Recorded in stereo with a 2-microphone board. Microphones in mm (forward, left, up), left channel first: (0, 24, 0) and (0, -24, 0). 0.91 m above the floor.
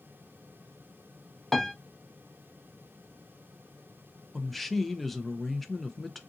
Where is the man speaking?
5° left (ahead or behind), 0.6 m.